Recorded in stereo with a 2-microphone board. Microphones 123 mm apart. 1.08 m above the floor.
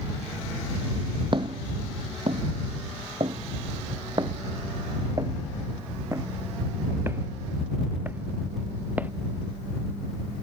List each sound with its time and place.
1.3 s footsteps: 40° right (ahead or behind); by 9.1 s 15° right (ahead or behind)